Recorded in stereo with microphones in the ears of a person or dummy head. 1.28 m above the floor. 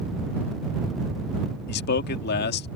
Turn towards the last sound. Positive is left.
turn(degrees=55)  # may be behind; listen again after turning